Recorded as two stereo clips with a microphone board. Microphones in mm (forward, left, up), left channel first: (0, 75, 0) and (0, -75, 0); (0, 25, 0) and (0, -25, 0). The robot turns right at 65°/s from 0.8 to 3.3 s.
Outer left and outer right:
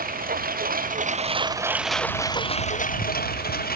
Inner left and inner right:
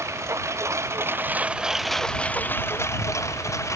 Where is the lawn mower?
70° right; by 3.8 s 90° left.